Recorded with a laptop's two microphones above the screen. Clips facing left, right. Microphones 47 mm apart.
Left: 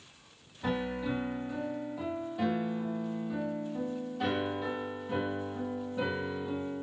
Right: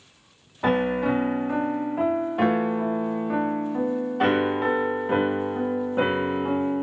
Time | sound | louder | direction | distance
0.6 | a piano | right 11 dB | 55° right (ahead or behind) | 0.8 m